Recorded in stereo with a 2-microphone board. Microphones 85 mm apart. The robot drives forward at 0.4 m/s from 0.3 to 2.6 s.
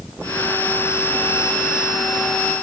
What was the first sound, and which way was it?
Only background noise.